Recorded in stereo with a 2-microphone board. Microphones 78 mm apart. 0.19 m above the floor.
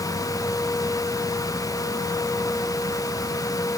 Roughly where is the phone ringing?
No phone ringing in this recording.